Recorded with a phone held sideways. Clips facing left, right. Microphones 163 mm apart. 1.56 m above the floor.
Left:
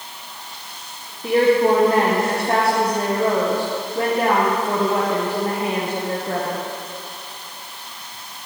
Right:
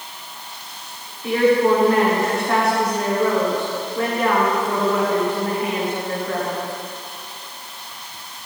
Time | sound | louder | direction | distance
1.2 | a woman speaking | left 1 dB | 35° left (ahead or behind) | 1.4 m